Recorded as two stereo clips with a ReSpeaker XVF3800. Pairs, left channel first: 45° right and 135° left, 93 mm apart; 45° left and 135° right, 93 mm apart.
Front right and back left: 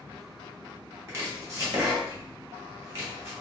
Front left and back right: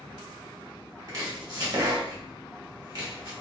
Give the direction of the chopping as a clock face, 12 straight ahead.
6 o'clock.